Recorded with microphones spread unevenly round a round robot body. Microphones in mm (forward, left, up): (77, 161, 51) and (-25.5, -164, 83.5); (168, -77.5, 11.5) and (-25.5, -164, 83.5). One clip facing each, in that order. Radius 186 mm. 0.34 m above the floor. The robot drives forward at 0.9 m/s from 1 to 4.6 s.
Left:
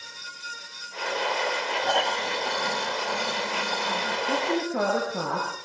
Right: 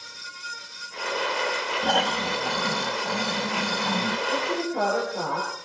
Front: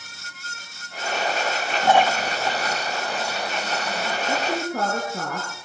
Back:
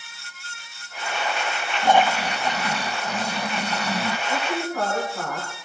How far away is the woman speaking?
About 6.5 m.